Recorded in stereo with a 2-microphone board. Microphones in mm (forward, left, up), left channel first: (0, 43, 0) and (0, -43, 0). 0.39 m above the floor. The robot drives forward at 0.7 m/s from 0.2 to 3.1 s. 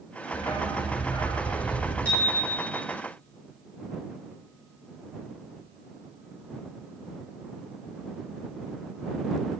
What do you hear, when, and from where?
0.3 s a dog barking: 85° left, 3 m; by 1.9 s 65° left (ahead or behind), 3 m
2.0 s a bicycle bell: 15° left (ahead or behind), 5.5 m; by 2.8 s 20° left (ahead or behind), 5 m